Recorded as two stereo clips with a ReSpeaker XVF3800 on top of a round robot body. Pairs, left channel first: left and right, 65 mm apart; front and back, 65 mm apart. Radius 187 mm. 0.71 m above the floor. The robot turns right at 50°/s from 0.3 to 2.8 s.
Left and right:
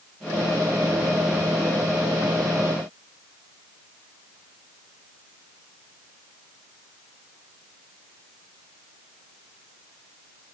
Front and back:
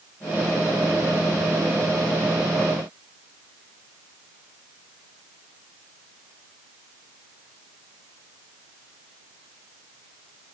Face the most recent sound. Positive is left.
No sound to turn to.